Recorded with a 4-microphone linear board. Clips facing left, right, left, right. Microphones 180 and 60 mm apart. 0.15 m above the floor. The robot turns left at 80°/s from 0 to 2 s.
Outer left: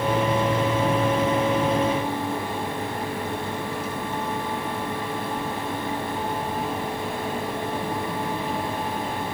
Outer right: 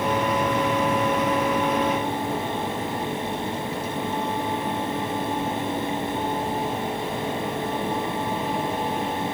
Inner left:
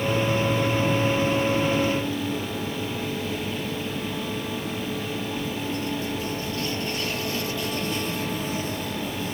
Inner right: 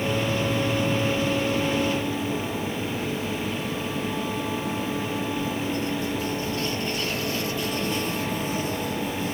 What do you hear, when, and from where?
Only background noise.